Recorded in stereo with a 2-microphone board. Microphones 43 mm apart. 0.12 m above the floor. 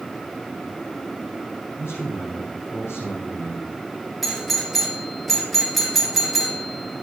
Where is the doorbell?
Centre (ahead or behind), 3 m.